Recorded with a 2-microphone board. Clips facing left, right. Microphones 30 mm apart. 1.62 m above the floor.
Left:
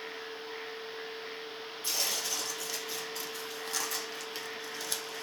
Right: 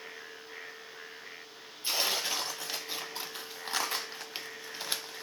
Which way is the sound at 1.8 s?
35° right (ahead or behind).